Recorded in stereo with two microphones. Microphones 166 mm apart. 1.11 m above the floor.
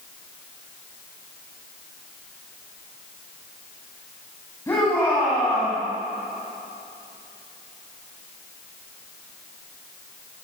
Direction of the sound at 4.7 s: 15° left (ahead or behind).